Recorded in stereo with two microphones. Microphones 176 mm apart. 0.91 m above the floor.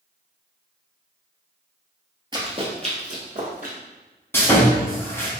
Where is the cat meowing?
No cat meowing in this recording.